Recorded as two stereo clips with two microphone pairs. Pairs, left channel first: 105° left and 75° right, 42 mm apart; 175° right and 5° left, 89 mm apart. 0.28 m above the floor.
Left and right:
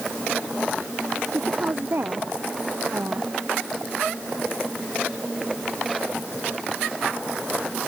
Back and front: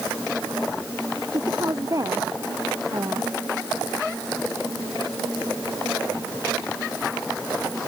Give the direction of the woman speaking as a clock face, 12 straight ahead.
1 o'clock.